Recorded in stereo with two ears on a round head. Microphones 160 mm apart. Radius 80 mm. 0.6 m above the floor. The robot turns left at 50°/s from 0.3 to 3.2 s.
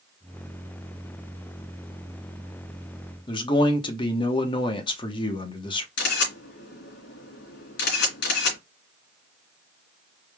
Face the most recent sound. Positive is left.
turn(degrees=65)  # may be behind; listen again after turning